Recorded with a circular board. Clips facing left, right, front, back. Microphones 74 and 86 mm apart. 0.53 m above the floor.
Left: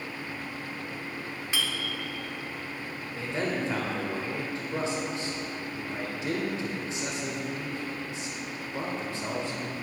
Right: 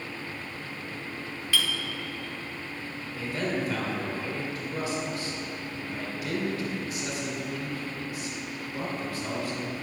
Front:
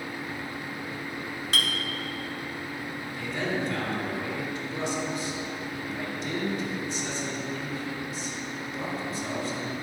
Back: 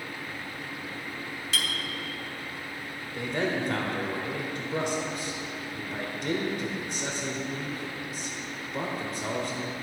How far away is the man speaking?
About 1.4 m.